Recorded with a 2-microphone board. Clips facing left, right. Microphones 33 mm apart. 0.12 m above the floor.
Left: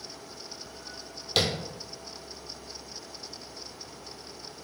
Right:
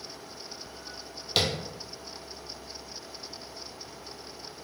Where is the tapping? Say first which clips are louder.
Even; 5° right (ahead or behind), 0.7 m.